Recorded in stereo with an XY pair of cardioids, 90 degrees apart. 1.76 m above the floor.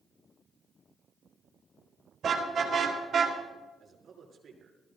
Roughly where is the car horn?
Ahead right.